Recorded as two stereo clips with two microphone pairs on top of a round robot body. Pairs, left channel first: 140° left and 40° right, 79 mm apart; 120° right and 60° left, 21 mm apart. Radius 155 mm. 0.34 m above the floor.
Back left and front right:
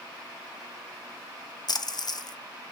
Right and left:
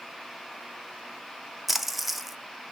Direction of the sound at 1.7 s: 135° left.